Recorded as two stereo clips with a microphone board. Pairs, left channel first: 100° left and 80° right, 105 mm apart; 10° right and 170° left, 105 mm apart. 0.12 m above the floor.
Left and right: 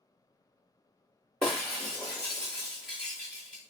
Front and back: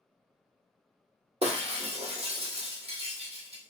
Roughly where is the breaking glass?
Behind.